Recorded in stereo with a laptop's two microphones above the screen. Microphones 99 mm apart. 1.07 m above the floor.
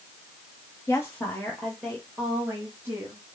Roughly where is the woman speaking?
Left.